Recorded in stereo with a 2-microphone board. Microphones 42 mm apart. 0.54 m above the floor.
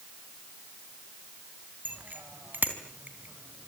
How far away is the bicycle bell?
About 3 m.